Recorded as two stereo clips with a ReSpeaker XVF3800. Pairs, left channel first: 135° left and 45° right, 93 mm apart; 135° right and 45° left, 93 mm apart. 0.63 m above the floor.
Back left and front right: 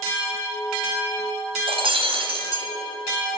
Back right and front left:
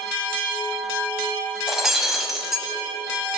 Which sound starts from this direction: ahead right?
Breaking glass, at 1.7 s.